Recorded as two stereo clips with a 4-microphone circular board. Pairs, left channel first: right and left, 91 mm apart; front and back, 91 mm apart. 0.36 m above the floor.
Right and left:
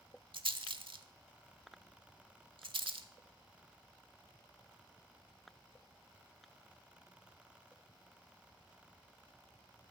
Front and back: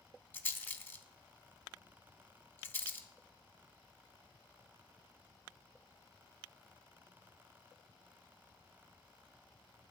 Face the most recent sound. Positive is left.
turn(degrees=70)